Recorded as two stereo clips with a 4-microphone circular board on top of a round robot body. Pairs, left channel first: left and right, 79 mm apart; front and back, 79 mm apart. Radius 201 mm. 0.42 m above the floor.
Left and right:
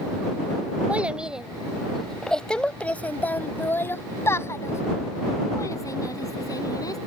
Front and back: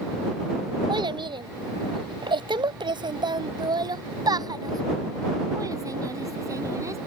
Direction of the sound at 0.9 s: 165° right.